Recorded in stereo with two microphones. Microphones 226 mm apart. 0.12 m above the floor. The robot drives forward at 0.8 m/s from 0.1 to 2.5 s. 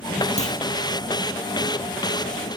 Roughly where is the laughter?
I don't hear laughter.